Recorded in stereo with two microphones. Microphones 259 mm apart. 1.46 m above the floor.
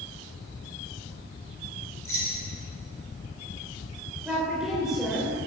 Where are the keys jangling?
55° left (ahead or behind), 4 m.